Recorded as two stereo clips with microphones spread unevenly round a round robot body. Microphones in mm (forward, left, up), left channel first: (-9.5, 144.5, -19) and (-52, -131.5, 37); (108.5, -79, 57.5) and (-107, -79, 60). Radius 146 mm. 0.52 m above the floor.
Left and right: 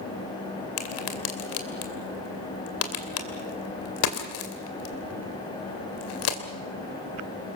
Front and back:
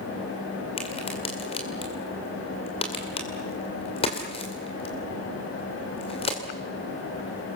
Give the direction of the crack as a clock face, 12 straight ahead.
10 o'clock.